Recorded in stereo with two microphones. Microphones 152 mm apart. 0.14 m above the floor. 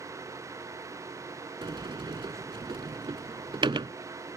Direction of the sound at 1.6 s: 35° right (ahead or behind).